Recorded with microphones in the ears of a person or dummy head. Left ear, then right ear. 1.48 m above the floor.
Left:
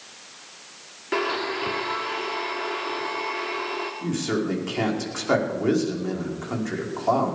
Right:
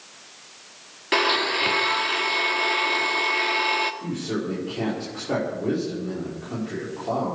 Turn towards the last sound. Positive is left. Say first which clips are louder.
# left 3 dB
turn(degrees=55)  # may be behind; listen again after turning